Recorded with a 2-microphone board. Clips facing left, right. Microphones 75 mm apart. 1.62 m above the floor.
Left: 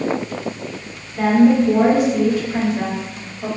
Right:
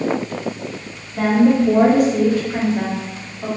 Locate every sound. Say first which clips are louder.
1.2 s a woman speaking: left 1 dB; 65° right (ahead or behind), 1.6 m; by 3.5 s 10° right (ahead or behind), 1.4 m